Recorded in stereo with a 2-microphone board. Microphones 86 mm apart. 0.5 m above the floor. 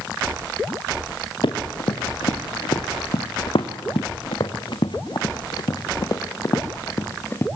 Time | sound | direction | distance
1.4 | running footsteps | 70° left (ahead or behind) | 3.5 m